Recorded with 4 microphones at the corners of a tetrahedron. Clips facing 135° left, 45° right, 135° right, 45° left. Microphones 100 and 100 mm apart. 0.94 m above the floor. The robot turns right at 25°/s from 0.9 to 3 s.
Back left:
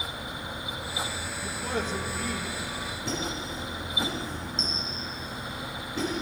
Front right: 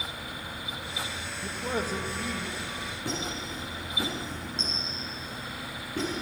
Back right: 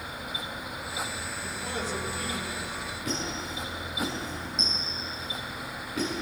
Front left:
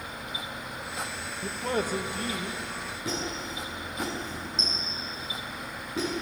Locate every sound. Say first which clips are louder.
1.4 s a man speaking: even, front left 6 dB; 25° left, 1.1 m; by 3.0 s 60° left, 1.1 m
3.0 s a squeak: back left 1 dB, even; 15° right, 6.5 m